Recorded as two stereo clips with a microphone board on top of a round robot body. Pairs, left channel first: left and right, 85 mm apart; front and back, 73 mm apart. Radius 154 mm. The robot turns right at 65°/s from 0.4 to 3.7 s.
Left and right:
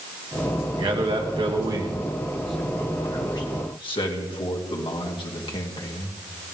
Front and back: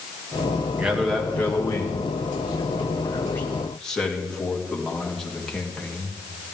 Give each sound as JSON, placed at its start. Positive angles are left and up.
{"t": 0.8, "sound": "a man speaking", "azimuth_deg": -110, "distance_m": 2.5}